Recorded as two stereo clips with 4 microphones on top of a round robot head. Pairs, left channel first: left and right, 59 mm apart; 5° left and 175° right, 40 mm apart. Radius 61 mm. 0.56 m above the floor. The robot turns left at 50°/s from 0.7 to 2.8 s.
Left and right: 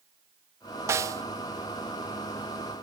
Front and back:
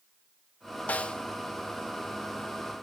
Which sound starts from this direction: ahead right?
A snare drum, at 0.9 s.